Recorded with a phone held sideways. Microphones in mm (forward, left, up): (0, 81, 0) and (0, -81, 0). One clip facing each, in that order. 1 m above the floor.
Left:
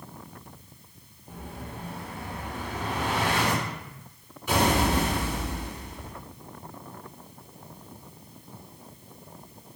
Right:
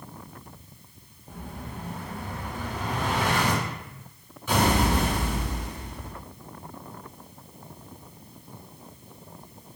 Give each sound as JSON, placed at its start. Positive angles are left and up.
{"t": 1.3, "sound": "an explosion", "side_deg": 10, "distance_m": 2.0}